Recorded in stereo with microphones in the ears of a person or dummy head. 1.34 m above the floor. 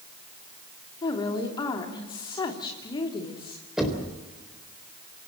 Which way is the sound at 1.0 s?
25° left (ahead or behind).